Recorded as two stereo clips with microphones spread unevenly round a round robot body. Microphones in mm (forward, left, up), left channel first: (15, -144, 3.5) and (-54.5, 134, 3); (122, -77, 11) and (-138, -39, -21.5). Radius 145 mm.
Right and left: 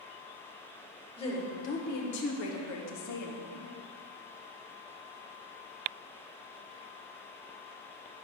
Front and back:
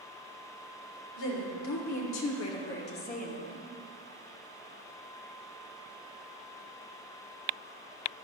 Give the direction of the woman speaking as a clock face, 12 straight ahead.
12 o'clock.